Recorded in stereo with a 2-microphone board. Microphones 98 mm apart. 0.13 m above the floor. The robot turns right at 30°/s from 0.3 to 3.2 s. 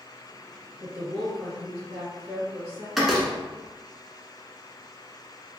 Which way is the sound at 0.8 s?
20° left.